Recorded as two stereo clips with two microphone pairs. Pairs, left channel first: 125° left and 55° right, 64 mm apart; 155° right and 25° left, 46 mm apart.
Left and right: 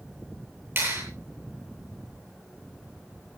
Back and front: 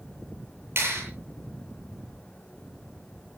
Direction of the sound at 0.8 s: 10° right.